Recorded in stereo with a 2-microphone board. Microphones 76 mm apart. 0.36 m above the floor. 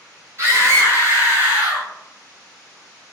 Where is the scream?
40° right (ahead or behind), 1.9 m; by 1.9 s 15° right (ahead or behind), 1.5 m.